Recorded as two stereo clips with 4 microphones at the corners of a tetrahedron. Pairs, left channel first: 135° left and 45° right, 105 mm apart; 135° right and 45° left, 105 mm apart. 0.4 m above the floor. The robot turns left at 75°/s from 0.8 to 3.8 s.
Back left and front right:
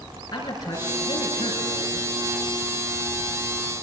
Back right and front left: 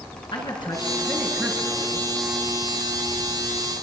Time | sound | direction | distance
0.3 | a man speaking | 175° right | 5 m